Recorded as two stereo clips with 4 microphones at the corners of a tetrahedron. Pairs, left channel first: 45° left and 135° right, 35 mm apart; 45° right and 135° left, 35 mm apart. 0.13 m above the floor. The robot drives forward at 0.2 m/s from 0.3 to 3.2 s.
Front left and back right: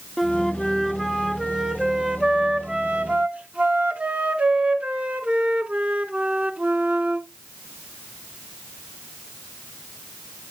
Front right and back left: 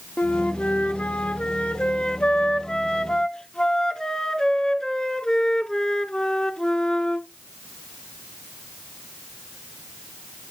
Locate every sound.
0.2 s a flute: 35° right, 0.7 m; by 7.3 s 110° right, 0.6 m